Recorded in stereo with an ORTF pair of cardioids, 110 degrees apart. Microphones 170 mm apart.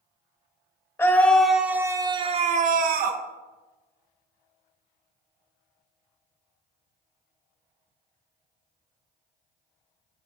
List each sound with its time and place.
1.0 s a scream: 15° left, 1.0 m; by 3.2 s 70° right, 0.9 m